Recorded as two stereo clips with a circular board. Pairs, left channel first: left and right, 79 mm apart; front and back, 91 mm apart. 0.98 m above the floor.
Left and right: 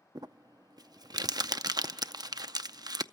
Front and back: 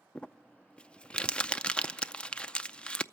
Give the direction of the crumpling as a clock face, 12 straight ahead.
3 o'clock.